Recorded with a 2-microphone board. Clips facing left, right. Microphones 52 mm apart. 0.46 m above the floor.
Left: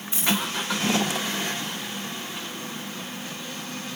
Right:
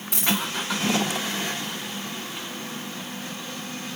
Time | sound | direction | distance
0.1 | a dropped coin | 75° right (ahead or behind) | 4.5 m